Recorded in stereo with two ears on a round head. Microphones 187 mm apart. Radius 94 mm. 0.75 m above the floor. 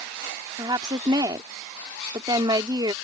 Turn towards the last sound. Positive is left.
turn(degrees=-20)  # may be behind; listen again after turning